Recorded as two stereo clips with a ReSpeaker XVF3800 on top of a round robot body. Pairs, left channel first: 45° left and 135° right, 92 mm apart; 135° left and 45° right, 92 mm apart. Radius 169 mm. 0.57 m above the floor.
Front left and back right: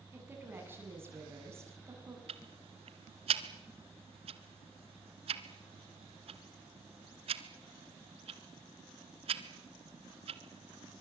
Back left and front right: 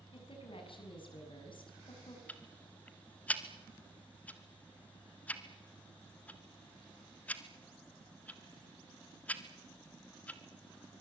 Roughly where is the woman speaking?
Behind.